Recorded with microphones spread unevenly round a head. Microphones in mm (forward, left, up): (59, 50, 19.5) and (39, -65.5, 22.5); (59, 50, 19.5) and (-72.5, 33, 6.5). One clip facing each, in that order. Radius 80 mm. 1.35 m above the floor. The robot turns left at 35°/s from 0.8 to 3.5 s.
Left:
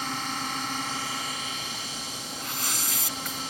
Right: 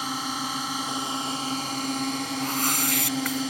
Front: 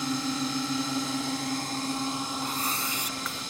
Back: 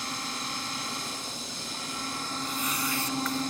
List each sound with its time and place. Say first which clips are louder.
0.0 s a drone: right 2 dB, front 8 dB; 20° right; by 3.5 s 115° right
2.4 s a whoosh: right 8 dB, front 1 dB; 50° right; by 3.4 s 85° right